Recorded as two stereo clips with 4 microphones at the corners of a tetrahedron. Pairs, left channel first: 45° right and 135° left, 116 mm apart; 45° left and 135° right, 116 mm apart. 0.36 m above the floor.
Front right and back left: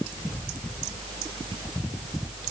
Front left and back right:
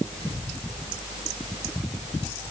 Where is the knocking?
No knocking in this recording.